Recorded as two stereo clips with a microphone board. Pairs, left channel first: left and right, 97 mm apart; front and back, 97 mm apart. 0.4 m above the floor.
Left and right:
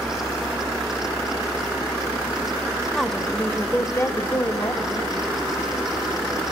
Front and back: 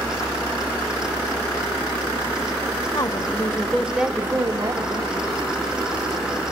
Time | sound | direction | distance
3.0 | a woman speaking | straight ahead | 1.2 m